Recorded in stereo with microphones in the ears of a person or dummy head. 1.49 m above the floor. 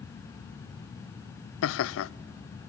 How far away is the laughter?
About 0.5 m.